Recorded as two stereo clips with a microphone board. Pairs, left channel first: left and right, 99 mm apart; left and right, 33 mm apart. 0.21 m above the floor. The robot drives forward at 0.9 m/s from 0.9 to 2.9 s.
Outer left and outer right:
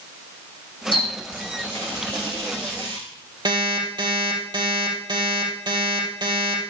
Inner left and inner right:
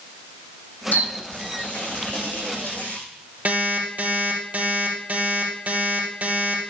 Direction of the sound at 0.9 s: 60° left (ahead or behind).